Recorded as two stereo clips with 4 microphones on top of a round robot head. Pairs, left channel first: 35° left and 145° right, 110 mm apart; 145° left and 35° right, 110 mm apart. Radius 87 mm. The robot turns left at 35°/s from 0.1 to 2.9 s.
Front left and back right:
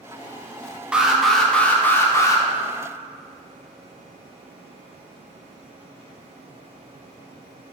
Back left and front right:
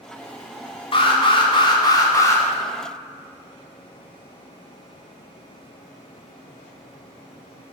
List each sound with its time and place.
0.9 s an alarm: 140° left, 2 m; by 2.4 s 85° left, 2 m